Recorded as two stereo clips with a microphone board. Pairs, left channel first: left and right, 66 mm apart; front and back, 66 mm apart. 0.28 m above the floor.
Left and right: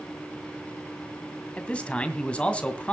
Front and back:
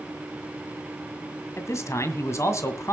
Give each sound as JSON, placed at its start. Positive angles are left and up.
{"t": 1.6, "sound": "a man speaking", "azimuth_deg": 25, "distance_m": 2.0}